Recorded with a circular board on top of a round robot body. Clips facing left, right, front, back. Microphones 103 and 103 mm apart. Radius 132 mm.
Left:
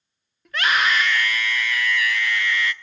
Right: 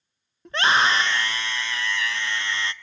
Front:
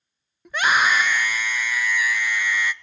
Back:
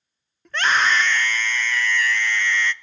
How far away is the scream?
About 0.6 m.